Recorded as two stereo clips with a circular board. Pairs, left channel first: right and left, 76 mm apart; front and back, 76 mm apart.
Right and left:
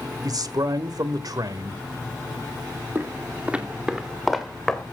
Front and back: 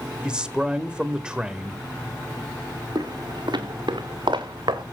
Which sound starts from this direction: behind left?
Footsteps, at 3.0 s.